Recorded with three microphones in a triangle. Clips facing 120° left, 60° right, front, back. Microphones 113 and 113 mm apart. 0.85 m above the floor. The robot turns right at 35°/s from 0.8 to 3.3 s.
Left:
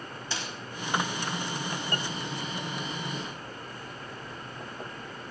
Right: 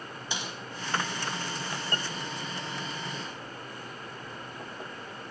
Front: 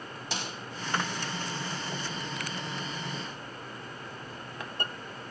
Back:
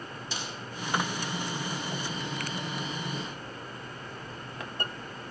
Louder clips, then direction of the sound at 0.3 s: Even, front 3 dB; 15° left.